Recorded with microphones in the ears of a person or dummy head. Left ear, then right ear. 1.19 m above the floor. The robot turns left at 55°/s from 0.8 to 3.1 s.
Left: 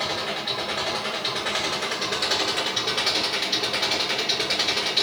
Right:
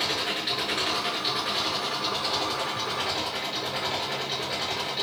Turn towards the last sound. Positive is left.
turn(degrees=70)